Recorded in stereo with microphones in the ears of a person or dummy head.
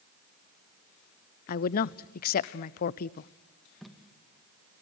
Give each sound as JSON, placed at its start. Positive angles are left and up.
{"t": 1.5, "sound": "a woman speaking", "side_deg": 45, "distance_m": 0.6}
{"t": 3.8, "sound": "tape being pulled", "side_deg": 5, "distance_m": 1.9}